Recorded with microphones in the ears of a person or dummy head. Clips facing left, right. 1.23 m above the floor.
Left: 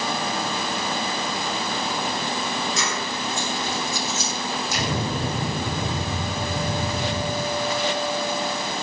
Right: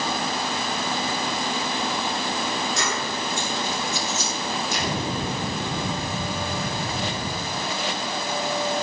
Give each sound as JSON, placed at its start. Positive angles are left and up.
{"t": 2.8, "sound": "keys jangling", "side_deg": 65, "distance_m": 10.0}
{"t": 4.7, "sound": "an explosion", "side_deg": 65, "distance_m": 7.5}